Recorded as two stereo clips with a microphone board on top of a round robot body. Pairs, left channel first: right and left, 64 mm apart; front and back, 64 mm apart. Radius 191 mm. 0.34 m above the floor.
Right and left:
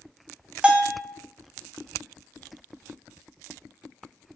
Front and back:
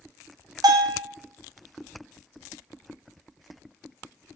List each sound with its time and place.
0.6 s a bell: 165° left, 0.5 m